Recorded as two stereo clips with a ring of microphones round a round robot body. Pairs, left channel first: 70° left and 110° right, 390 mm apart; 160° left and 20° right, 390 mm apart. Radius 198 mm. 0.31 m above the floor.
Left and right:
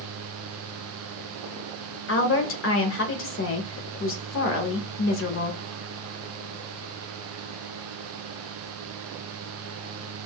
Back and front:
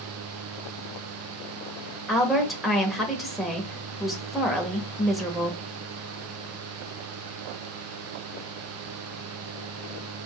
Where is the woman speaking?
70° left, 1.0 m.